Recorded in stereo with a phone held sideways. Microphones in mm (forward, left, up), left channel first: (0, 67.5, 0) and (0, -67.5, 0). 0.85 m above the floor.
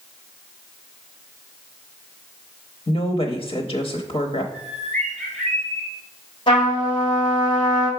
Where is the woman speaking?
45° left (ahead or behind), 0.8 m.